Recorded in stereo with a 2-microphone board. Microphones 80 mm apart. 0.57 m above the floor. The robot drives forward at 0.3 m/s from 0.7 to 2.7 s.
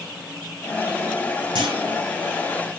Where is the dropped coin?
No dropped coin in this recording.